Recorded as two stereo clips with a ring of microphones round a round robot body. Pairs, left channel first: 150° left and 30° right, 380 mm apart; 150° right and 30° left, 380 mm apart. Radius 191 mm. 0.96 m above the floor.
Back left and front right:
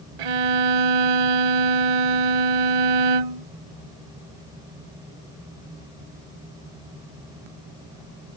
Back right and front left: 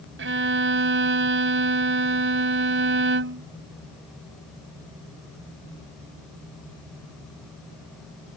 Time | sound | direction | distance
0.2 | a violin | 30° right | ?